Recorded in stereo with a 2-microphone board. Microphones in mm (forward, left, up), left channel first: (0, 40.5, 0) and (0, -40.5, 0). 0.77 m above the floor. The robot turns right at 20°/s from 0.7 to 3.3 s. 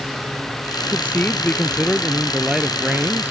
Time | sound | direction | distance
0.9 | a man speaking | 155° left | ?